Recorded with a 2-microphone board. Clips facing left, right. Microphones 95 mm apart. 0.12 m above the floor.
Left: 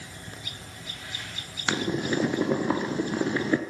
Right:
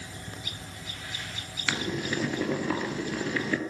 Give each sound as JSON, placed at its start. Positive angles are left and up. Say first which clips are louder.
{"t": 1.7, "sound": "boiling", "louder": "left 4 dB", "side_deg": 25, "distance_m": 2.0}